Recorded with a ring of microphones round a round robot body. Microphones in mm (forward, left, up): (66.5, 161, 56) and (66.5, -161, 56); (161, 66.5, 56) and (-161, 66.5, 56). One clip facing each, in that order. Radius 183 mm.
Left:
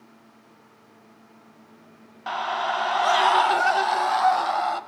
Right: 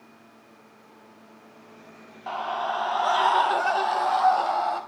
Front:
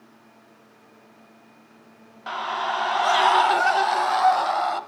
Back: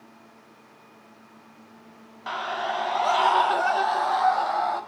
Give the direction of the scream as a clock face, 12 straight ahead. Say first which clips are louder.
Left 1 dB, even; 9 o'clock.